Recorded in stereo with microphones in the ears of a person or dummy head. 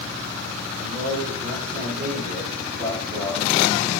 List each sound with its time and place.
0.8 s a man speaking: 60° right (ahead or behind), 8.5 m